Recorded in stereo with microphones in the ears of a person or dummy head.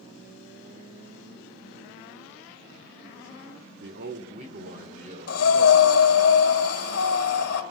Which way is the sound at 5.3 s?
75° left (ahead or behind).